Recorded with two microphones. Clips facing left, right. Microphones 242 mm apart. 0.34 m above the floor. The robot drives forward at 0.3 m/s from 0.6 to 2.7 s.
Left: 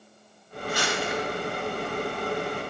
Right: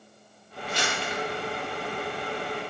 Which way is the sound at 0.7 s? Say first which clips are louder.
Left 3 dB; 25° right (ahead or behind).